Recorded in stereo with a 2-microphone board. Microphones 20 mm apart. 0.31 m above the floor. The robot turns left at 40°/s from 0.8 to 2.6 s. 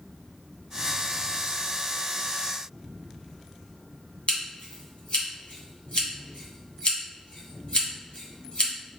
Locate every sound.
4.3 s scissors: 55° left (ahead or behind), 1.3 m